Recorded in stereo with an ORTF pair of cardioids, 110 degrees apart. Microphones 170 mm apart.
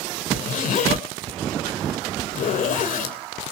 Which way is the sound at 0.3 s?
55° left.